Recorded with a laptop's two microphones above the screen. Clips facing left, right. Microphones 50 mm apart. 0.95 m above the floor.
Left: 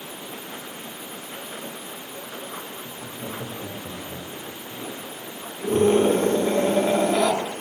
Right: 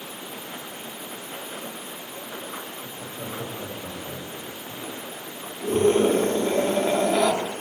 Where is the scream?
5° left (ahead or behind), 2 m.